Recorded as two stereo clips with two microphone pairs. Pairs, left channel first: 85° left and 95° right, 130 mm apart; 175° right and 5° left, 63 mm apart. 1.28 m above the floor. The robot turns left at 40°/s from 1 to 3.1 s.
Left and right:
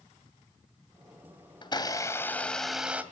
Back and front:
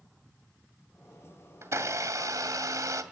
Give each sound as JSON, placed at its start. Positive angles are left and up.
{"t": 1.6, "sound": "a blender", "azimuth_deg": 40, "distance_m": 2.0}